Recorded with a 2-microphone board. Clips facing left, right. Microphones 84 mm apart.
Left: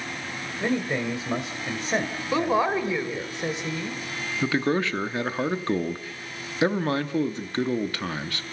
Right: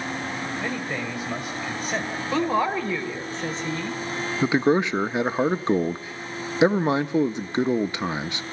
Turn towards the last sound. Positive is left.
turn(degrees=-20)  # may be behind; listen again after turning